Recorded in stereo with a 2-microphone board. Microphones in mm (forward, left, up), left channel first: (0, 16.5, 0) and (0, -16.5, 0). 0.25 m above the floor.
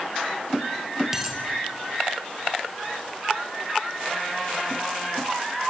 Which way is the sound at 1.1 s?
15° right (ahead or behind).